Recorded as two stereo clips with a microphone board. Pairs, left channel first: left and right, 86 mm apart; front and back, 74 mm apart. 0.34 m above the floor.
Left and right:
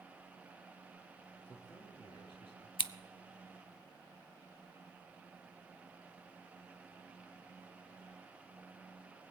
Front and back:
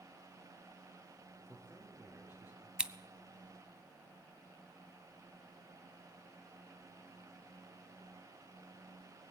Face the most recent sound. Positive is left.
turn(degrees=105)